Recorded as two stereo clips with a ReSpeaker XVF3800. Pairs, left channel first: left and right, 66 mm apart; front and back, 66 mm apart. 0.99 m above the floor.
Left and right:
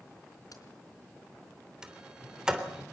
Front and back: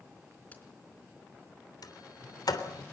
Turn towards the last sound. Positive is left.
turn(degrees=-10)